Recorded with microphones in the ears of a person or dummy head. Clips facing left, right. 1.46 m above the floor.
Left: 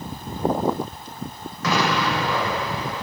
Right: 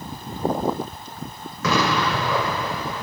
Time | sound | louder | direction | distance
1.6 | an explosion | right 1 dB | 60° right (ahead or behind) | 3 m